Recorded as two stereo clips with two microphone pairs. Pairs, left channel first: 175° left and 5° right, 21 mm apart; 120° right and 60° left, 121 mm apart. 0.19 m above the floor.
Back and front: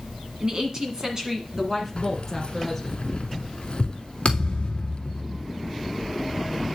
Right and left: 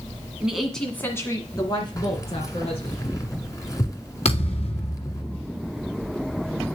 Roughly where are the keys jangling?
Behind.